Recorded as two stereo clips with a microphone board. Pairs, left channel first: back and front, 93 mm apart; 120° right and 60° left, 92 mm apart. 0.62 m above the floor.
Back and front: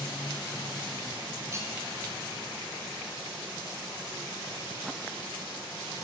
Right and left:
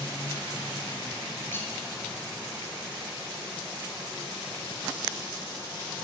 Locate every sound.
1.5 s cutlery clinking: 55° right, 1.7 m